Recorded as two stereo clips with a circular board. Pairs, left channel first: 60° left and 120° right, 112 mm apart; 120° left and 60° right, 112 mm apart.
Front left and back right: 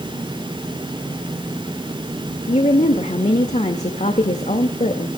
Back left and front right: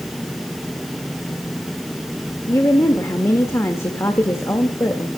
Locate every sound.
2.5 s a woman speaking: 55° left, 1.9 m